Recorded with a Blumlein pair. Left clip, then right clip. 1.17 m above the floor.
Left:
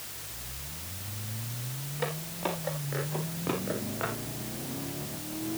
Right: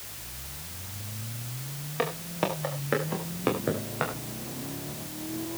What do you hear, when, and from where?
2.0 s footsteps: 50° right, 7.5 m; by 4.1 s 65° right, 6.5 m